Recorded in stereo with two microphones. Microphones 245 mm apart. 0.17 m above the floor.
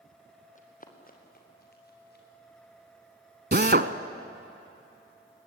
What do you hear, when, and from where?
0.6 s running footsteps: 30° left (ahead or behind), 3 m; by 2.2 s 45° left (ahead or behind), 5.5 m
3.5 s a drill: 45° right (ahead or behind), 0.8 m